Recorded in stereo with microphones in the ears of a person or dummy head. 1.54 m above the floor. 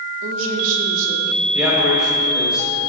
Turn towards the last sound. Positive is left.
turn(degrees=-5)  # may be behind; listen again after turning